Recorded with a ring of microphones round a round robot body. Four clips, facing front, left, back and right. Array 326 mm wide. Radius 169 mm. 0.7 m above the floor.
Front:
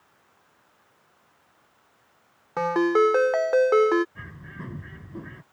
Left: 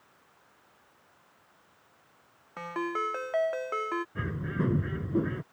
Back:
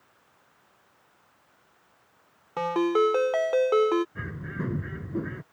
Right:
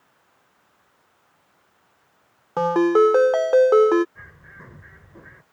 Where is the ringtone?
80° right.